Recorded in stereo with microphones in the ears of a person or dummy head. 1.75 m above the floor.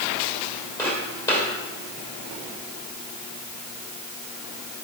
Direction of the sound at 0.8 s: 10° left (ahead or behind).